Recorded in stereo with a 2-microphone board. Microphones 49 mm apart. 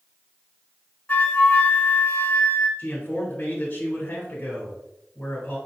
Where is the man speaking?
30° left (ahead or behind), 1.3 m.